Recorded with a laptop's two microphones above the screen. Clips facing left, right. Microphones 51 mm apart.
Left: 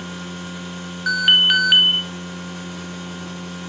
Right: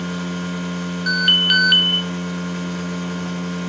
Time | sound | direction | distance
0.0 | a machine running | 75° right (ahead or behind) | 3 m
1.1 | an alarm | 10° left (ahead or behind) | 0.6 m